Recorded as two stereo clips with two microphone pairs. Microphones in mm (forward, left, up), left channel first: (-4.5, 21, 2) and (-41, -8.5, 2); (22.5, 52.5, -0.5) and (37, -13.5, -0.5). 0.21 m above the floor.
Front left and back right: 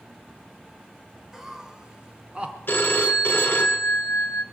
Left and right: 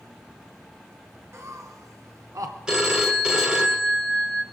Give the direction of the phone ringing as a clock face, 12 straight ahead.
12 o'clock.